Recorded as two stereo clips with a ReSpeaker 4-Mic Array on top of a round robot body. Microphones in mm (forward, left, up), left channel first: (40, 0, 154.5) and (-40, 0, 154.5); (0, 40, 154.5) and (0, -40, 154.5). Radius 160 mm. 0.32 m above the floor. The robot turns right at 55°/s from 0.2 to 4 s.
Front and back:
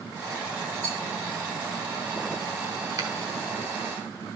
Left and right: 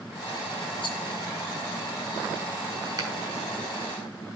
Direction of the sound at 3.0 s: 135° right.